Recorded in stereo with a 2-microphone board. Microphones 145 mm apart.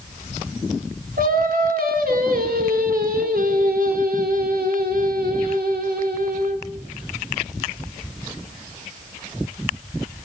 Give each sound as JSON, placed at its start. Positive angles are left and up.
{"t": 1.2, "sound": "singing", "side_deg": -80, "distance_m": 3.5}